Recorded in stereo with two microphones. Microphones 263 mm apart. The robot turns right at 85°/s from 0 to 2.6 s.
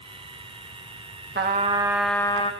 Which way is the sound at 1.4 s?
60° right.